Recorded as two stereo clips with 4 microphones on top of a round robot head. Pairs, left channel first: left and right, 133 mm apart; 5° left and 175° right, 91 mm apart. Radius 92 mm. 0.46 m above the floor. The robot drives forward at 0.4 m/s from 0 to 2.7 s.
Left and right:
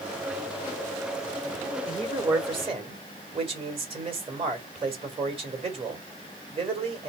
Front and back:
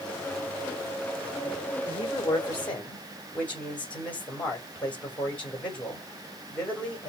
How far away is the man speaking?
About 2 m.